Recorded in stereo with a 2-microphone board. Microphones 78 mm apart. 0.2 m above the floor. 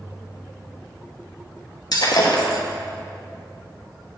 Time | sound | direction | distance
1.9 | breaking glass | 65° left (ahead or behind) | 1.1 m